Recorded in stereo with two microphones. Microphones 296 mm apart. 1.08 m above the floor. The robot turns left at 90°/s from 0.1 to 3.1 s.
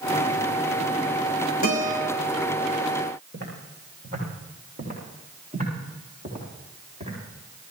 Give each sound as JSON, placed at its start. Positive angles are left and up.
{"t": 1.6, "sound": "a guitar", "azimuth_deg": -90, "distance_m": 6.0}
{"t": 3.3, "sound": "footsteps", "side_deg": -35, "distance_m": 7.0}